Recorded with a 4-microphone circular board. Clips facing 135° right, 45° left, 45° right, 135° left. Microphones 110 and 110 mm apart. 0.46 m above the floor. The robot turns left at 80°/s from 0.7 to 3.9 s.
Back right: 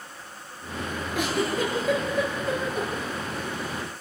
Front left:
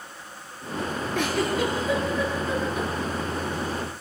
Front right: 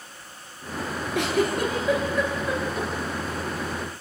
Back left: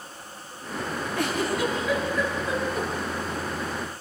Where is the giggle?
50° right, 8 m; by 2.9 s 170° left, 8 m.